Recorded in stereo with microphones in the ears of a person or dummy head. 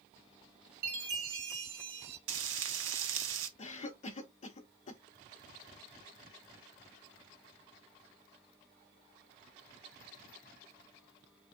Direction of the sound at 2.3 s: 70° right (ahead or behind).